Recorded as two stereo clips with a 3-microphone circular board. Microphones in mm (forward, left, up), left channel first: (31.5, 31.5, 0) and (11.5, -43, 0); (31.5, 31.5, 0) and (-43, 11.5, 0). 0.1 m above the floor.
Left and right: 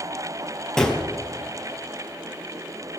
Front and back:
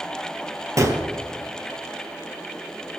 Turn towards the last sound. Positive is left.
turn(degrees=155)